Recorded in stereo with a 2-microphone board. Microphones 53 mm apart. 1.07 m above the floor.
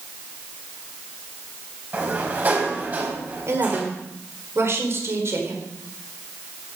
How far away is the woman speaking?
About 4.5 m.